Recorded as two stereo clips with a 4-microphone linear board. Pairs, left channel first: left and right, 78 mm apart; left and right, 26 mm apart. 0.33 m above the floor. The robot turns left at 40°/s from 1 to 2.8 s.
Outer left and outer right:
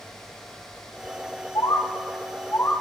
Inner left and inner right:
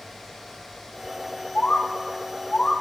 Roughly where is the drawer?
I don't hear a drawer.